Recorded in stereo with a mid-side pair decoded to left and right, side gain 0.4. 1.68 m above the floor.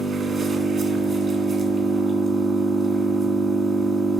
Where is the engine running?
50° right, 3.5 m.